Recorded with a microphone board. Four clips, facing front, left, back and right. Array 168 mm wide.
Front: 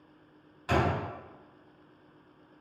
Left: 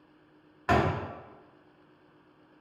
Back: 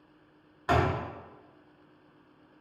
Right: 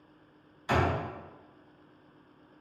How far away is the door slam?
About 1.0 m.